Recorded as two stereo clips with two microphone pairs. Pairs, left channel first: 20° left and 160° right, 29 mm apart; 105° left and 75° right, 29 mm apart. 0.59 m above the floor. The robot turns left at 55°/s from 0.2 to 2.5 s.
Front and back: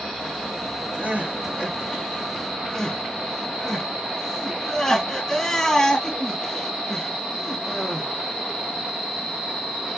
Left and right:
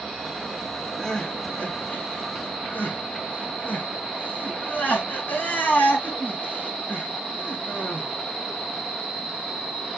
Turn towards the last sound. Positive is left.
turn(degrees=95)